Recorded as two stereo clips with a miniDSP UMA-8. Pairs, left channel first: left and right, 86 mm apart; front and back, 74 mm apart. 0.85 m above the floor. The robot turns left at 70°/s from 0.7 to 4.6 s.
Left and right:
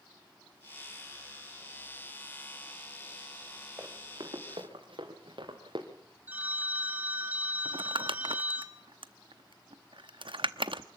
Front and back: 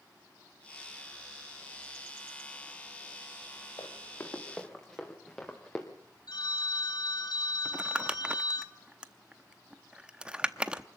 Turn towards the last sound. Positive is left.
turn(degrees=-105)